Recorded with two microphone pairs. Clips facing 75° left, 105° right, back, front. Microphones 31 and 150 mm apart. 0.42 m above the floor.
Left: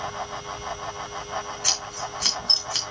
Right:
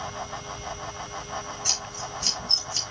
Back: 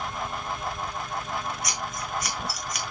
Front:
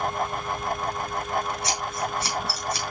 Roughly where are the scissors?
Ahead left.